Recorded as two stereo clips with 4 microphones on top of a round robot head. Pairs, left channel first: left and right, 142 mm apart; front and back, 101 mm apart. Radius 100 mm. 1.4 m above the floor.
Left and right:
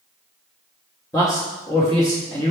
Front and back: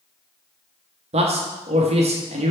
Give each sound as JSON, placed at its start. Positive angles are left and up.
{"t": 1.1, "sound": "a man speaking", "azimuth_deg": 165, "distance_m": 0.9}